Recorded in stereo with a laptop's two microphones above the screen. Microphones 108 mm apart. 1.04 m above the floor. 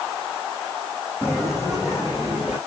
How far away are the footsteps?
About 3 m.